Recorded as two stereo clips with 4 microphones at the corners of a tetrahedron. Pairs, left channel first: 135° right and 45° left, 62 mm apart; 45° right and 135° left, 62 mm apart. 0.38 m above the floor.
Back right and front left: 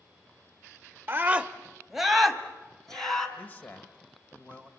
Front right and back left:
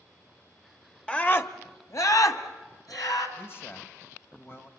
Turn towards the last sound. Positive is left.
turn(degrees=-80)